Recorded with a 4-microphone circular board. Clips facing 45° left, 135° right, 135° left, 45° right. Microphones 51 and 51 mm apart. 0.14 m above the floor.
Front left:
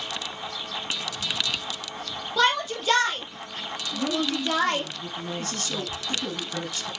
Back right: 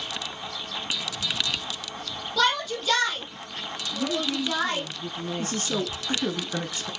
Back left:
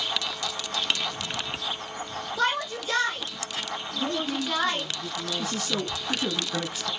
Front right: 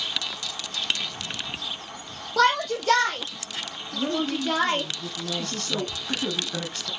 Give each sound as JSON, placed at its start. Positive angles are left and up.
{"t": 2.4, "sound": "a shout", "azimuth_deg": -30, "distance_m": 4.0}
{"t": 3.9, "sound": "a woman speaking", "azimuth_deg": -30, "distance_m": 1.1}
{"t": 5.4, "sound": "a man speaking", "azimuth_deg": -150, "distance_m": 1.1}